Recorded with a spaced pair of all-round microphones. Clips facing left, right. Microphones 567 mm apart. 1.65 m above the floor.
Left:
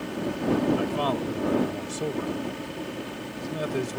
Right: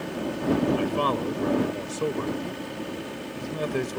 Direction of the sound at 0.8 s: 5° left (ahead or behind).